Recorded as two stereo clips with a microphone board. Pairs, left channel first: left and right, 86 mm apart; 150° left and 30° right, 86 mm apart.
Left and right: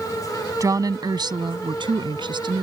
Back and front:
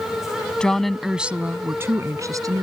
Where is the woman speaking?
130° right; by 2.6 s 70° right.